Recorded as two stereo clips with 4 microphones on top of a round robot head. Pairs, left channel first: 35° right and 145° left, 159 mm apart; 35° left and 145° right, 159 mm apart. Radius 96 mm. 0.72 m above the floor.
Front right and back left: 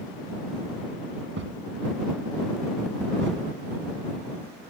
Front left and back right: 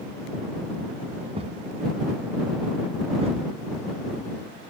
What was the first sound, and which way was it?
A thud, 160° left.